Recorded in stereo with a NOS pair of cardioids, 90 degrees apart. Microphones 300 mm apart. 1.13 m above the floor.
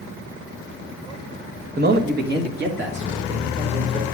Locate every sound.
1.8 s a man speaking: 35° right, 1.2 m; by 4.0 s 40° right, 3.5 m